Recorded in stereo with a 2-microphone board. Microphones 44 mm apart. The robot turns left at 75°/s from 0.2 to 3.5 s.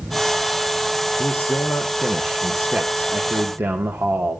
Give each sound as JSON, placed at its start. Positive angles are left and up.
{"t": 1.2, "sound": "a man speaking", "azimuth_deg": 100, "distance_m": 2.0}